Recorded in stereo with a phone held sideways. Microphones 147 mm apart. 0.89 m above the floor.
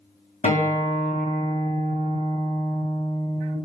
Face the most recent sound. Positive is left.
turn(degrees=60)  # may be behind; listen again after turning